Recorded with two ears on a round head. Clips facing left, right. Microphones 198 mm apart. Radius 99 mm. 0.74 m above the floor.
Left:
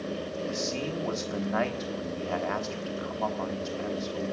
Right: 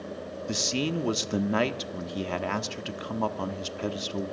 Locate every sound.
0.5 s a man speaking: 45° right (ahead or behind), 1.3 m